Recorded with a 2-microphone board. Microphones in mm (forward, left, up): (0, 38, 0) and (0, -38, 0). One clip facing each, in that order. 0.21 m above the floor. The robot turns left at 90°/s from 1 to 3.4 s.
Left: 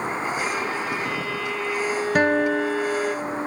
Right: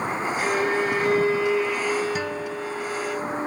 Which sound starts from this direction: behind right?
A violin, at 0.4 s.